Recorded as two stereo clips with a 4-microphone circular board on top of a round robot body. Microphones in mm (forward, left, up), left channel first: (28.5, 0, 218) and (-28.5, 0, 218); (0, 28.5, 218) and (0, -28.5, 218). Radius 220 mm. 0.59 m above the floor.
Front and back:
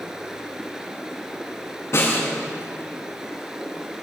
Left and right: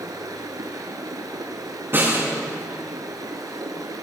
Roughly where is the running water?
Right.